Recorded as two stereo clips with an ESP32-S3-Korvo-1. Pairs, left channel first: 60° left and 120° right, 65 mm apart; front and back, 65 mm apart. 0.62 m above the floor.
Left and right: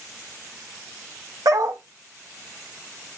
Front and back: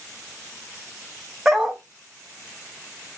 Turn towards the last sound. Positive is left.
turn(degrees=-100)